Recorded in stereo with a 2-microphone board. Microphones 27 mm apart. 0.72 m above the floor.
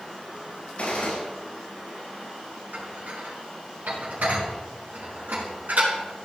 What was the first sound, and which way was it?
A gunshot, 55° left (ahead or behind).